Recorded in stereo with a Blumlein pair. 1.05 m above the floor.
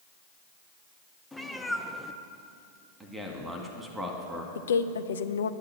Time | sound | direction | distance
1.3 | a cat meowing | 5° left | 0.7 m
3.0 | a man speaking | 10° right | 1.9 m
4.5 | a woman speaking | 65° left | 0.6 m